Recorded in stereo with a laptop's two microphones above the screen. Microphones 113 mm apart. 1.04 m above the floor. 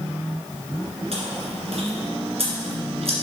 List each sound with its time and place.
1.1 s chewing: 65° right (ahead or behind), 2 m